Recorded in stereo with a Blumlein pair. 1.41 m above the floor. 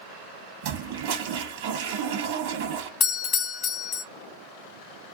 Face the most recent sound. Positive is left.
turn(degrees=25)